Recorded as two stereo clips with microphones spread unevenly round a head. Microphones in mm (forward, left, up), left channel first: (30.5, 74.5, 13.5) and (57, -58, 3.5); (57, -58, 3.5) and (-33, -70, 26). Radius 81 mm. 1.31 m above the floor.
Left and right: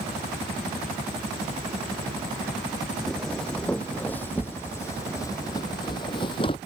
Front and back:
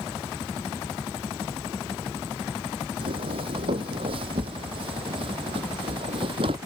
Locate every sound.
3.0 s footsteps: 175° right; by 6.6 s 160° left